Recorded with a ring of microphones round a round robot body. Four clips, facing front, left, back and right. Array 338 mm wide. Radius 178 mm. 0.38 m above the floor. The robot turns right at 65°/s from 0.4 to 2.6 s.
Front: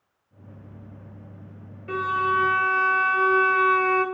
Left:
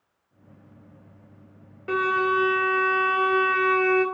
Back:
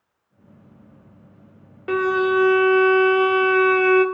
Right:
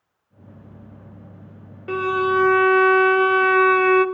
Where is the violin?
175° right, 0.6 m; by 4.0 s 130° right, 0.6 m.